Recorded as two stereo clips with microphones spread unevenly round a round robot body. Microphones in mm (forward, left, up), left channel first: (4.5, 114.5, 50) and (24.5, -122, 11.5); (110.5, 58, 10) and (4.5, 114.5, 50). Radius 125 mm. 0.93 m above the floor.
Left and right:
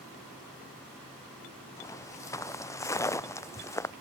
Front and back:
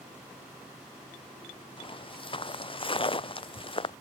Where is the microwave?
I don't hear a microwave.